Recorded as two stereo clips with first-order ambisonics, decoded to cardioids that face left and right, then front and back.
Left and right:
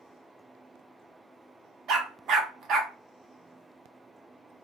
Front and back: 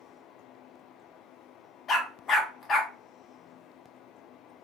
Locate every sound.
1.9 s a dog barking: 55° right, 0.8 m